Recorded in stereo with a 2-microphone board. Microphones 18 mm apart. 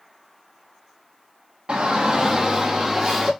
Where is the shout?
55° right (ahead or behind), 0.8 m; by 3.3 s 5° right (ahead or behind), 1.4 m.